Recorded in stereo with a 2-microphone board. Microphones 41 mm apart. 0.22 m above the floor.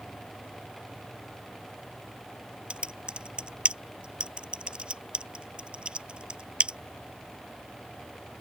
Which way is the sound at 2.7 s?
30° right (ahead or behind).